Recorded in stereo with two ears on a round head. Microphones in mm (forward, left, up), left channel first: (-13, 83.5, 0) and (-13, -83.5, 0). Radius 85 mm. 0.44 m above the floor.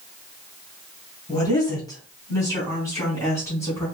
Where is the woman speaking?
20° left (ahead or behind), 2.0 m; by 3.9 s 15° left (ahead or behind), 3.5 m.